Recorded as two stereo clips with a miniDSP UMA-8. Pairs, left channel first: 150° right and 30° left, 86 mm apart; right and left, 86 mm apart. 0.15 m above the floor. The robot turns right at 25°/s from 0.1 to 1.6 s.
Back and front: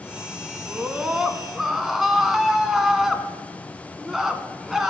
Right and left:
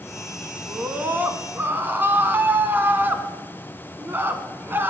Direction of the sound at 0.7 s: 85° left.